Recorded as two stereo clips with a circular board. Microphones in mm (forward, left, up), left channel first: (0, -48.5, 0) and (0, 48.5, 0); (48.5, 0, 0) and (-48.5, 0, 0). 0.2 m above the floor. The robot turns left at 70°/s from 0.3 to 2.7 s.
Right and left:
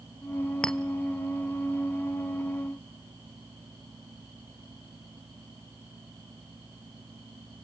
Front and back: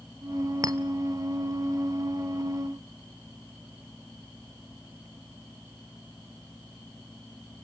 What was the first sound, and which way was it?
A clink, 165° right.